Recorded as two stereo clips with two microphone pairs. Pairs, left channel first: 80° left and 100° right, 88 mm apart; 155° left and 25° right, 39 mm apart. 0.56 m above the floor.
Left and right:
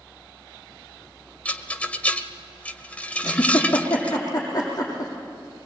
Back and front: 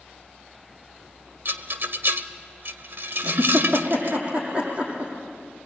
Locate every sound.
1.4 s a rattle: 10° left, 1.1 m
3.2 s a giggle: 30° left, 7 m